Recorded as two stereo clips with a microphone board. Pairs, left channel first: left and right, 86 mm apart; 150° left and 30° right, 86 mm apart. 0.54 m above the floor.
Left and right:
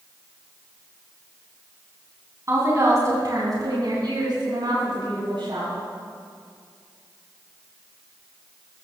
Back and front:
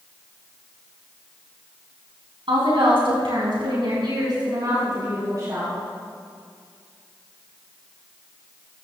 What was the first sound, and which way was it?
A woman speaking, 35° right.